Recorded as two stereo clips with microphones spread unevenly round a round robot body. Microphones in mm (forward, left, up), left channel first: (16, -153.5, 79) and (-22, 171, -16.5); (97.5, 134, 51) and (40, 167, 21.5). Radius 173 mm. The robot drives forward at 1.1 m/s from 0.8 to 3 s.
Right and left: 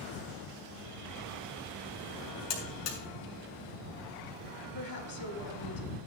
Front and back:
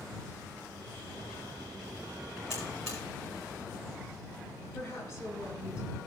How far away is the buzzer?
About 3.5 m.